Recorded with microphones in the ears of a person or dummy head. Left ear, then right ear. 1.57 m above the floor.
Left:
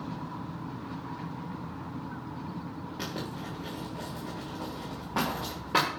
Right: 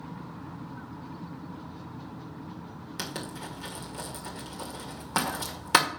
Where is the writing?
55° right (ahead or behind), 1.9 m.